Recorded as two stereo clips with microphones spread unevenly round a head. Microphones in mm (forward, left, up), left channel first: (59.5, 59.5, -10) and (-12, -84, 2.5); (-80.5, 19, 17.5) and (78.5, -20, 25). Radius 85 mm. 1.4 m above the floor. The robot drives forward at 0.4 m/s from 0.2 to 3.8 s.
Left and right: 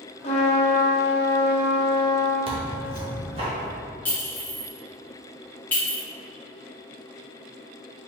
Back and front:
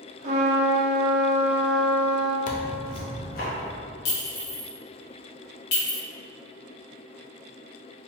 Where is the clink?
145° left, 1.0 m.